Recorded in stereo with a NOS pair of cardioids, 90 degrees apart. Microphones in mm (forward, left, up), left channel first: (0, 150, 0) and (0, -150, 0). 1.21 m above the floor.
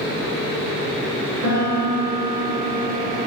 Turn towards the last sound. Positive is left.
turn(degrees=-55)